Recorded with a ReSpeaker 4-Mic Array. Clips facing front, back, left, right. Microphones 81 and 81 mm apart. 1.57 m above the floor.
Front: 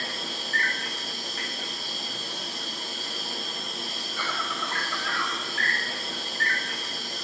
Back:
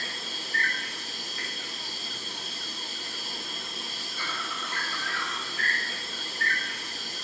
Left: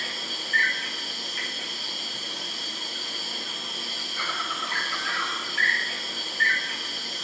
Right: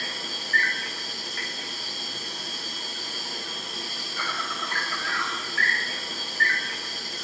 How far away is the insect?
About 1.4 m.